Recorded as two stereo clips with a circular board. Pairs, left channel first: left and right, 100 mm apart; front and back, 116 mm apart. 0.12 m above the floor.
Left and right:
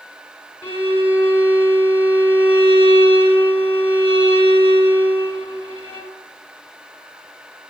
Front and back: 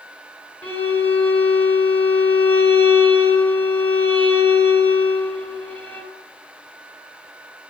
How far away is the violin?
About 3.5 m.